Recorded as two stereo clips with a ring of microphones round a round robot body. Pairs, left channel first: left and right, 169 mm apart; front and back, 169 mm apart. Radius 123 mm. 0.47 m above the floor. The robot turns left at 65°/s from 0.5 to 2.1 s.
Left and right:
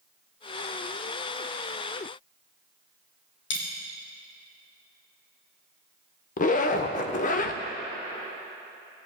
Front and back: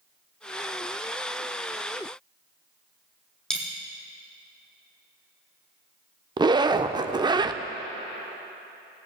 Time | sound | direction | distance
3.5 | a dropped coin | 85° left | 2.5 m
6.4 | a zipper | 120° left | 0.5 m